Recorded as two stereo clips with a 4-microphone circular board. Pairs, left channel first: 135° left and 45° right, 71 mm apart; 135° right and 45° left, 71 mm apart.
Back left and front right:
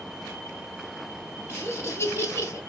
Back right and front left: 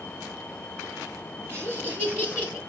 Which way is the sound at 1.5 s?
90° left.